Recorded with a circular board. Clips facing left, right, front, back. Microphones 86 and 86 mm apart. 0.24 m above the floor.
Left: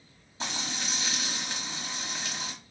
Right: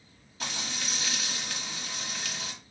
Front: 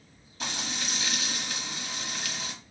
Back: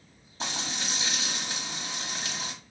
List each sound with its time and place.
0.4 s frying: 140° left, 1.3 m